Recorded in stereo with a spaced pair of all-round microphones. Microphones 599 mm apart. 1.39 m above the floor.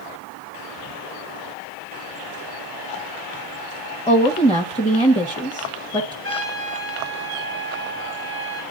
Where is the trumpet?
20° left (ahead or behind), 2 m.